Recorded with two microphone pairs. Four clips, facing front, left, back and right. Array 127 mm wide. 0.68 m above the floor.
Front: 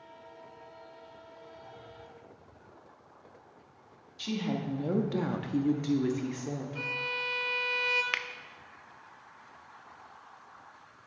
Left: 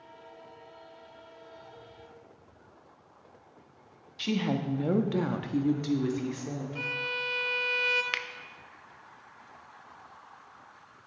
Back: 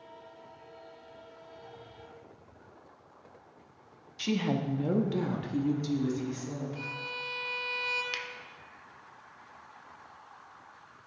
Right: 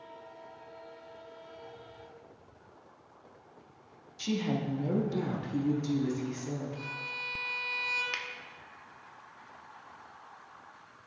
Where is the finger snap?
25° left, 0.5 m.